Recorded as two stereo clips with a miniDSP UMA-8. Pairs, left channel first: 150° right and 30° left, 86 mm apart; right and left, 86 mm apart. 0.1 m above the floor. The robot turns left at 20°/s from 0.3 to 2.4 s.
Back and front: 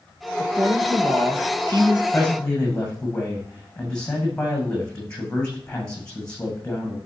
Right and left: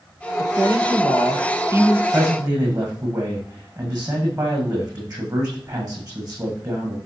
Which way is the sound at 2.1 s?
140° left.